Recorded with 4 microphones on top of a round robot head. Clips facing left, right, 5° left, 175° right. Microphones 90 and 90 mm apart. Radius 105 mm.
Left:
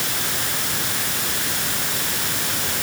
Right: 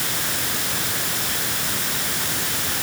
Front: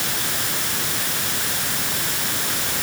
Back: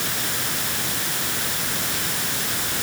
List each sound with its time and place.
Only background noise.